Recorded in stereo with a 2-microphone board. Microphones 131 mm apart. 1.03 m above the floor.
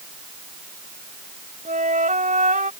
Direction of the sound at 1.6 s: 75° right (ahead or behind).